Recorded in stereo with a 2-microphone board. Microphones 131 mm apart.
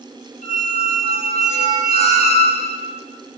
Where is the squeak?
55° left (ahead or behind), 0.6 m.